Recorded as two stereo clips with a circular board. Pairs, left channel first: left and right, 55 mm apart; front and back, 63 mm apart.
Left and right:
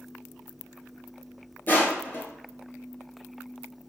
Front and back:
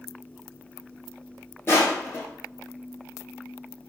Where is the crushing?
45° left, 1.4 m.